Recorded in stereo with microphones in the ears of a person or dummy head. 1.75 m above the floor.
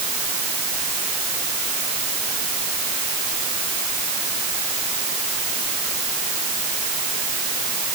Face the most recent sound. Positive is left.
No sound to turn to.